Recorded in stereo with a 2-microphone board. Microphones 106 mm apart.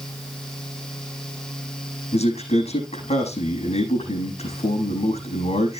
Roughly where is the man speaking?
Left.